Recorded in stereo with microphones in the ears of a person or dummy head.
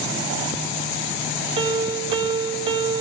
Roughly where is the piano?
Right.